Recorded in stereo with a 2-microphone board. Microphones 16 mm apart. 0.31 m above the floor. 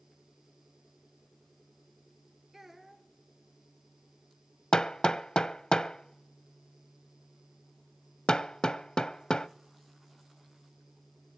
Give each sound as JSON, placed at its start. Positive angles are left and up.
{"t": 2.5, "sound": "a child speaking", "side_deg": -15, "distance_m": 3.0}
{"t": 4.7, "sound": "hammering", "side_deg": 50, "distance_m": 0.5}